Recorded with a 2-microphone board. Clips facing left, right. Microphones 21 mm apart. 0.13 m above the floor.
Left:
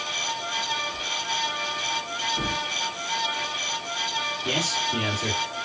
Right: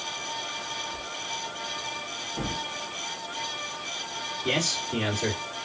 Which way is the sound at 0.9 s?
15° right (ahead or behind).